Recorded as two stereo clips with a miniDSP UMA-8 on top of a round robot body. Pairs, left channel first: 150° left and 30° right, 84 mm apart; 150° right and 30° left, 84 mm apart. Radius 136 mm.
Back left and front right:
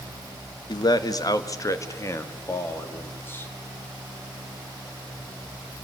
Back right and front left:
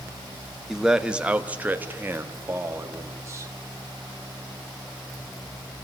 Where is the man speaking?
115° left, 1.4 m; by 3.5 s 85° left, 3 m.